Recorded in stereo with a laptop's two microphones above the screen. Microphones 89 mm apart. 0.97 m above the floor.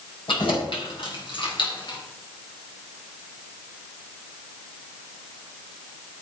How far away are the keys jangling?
About 4.5 m.